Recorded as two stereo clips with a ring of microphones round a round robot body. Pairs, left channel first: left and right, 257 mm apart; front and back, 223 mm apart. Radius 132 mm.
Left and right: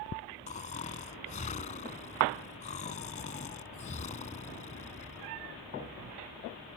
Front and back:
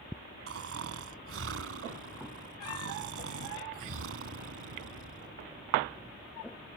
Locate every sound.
0.5 s snoring: 155° left